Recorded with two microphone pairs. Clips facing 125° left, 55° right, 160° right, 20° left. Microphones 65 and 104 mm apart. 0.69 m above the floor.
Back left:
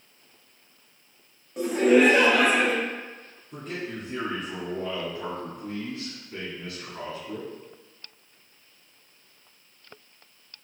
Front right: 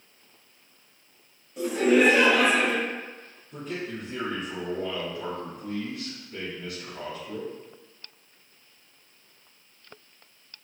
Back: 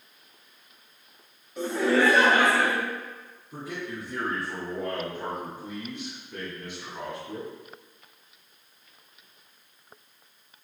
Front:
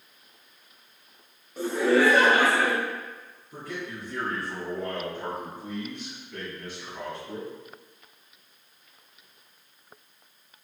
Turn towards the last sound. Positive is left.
turn(degrees=130)